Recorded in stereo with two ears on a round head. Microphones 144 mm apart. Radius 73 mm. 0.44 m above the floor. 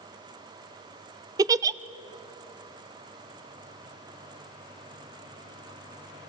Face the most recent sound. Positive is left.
turn(degrees=-20)  # may be behind; listen again after turning